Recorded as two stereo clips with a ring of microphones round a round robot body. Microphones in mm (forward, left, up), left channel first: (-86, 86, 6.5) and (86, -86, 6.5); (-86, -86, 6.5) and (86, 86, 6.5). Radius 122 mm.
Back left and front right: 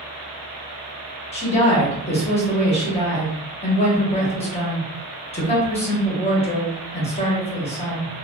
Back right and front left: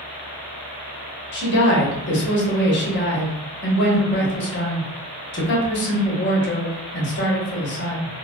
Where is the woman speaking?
165° right, 0.9 m.